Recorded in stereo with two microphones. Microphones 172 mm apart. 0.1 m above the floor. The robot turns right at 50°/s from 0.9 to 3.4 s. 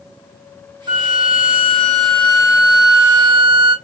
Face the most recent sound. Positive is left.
turn(degrees=-150)